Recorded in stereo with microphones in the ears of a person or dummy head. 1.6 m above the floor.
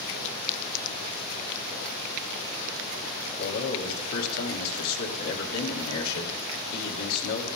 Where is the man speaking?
80° left, 2.5 m.